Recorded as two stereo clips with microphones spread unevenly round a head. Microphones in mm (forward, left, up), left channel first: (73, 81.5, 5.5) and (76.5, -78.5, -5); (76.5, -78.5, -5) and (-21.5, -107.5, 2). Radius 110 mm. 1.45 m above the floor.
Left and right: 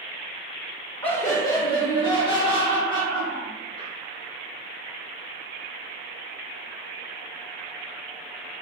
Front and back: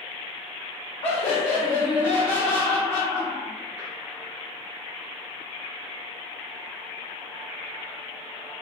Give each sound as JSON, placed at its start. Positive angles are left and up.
{"t": 1.0, "sound": "laughter", "azimuth_deg": 40, "distance_m": 0.5}